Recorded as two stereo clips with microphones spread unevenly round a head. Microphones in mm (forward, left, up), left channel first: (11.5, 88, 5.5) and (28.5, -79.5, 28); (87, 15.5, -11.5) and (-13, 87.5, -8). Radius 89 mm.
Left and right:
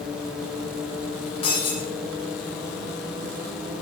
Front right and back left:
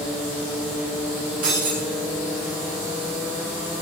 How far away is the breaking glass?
About 7 m.